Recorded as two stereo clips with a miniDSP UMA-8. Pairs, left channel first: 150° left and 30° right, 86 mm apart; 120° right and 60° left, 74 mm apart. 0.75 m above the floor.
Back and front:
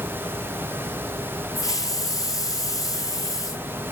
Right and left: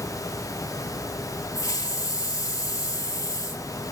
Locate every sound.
1.6 s a hiss: 165° right, 3 m